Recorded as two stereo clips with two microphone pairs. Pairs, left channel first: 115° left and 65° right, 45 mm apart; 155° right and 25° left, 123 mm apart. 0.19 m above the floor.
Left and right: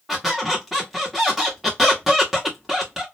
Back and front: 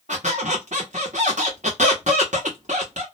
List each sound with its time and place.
0.1 s a squeak: 20° left, 1.6 m